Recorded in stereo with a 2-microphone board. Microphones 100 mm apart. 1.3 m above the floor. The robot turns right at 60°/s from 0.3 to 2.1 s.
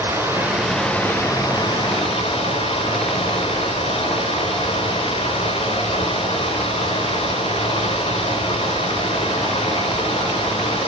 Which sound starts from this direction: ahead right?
Running water, at 0.0 s.